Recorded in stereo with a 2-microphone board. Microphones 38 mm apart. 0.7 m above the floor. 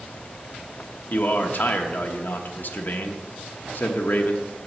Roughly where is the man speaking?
Left.